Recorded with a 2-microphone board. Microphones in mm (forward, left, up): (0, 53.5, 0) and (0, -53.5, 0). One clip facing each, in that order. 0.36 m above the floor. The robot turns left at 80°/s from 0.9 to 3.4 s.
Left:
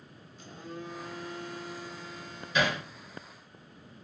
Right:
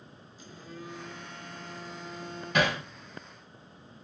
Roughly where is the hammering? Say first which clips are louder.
Right 2 dB; right.